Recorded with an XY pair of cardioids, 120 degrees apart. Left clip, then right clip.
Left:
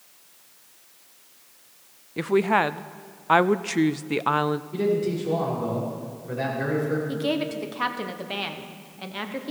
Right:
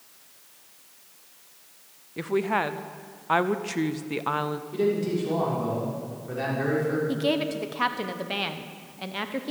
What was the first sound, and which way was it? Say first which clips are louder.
A woman speaking: left 4 dB; 30° left.